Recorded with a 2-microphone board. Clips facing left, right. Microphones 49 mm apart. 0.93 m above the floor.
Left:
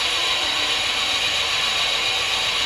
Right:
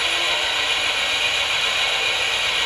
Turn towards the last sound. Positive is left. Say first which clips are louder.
# right 1 dB
turn(degrees=-35)  # may be behind; listen again after turning